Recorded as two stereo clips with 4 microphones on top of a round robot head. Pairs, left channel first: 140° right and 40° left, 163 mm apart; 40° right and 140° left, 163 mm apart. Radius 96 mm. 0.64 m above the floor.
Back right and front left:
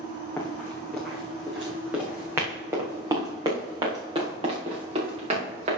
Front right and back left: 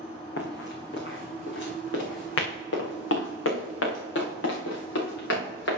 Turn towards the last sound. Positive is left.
turn(degrees=-15)